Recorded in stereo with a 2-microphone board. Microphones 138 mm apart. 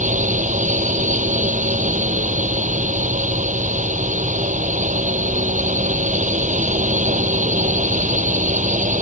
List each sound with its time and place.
0.0 s a drone: 70° right (ahead or behind)